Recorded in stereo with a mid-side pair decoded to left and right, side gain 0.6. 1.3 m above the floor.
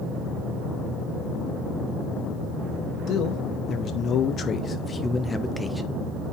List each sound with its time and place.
3.1 s a man speaking: 60° left, 2 m; by 6.0 s 5° right, 1.2 m